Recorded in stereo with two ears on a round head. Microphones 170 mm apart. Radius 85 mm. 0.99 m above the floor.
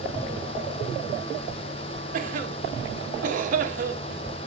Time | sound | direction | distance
2.1 | a cough | 45° right (ahead or behind) | 1.6 m